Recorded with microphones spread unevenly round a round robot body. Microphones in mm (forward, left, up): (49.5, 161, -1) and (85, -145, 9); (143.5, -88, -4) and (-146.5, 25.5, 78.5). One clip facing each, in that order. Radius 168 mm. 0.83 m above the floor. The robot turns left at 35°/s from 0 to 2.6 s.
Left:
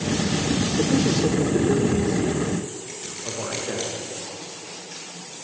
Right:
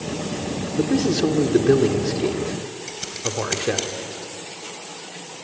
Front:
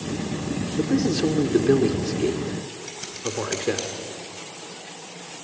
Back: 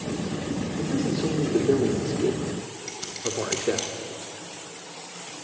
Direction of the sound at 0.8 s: 35° right.